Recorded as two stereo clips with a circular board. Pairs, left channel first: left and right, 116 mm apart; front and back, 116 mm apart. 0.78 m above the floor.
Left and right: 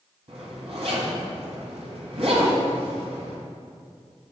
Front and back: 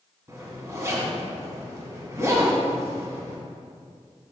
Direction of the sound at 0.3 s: 115° right.